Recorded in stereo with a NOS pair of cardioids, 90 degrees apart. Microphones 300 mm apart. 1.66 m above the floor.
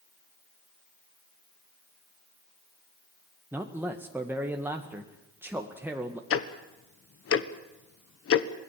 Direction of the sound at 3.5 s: 5° right.